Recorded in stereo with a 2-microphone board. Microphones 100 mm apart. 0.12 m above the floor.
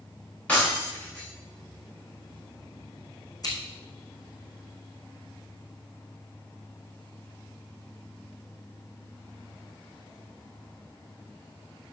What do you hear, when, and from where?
0.5 s breaking glass: 15° left (ahead or behind), 6.5 m
3.4 s scissors: 40° left (ahead or behind), 4 m